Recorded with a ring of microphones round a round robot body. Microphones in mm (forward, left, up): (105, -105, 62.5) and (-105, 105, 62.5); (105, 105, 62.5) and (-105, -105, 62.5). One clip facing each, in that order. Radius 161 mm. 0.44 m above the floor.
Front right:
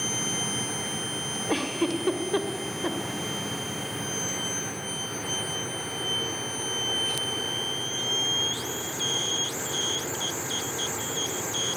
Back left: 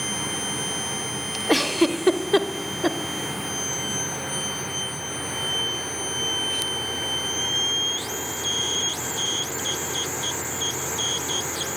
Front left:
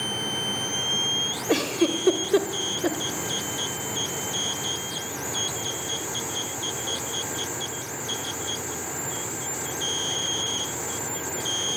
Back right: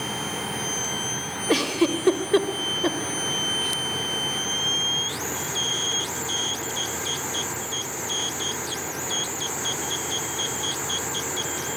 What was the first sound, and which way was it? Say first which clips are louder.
A giggle: back left 6 dB, back right 1 dB; 140° left.